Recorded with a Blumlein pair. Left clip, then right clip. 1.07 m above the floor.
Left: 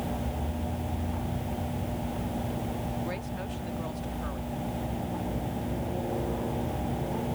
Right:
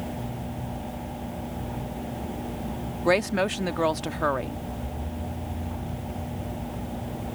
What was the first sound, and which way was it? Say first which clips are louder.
A woman speaking: right 13 dB; 40° right.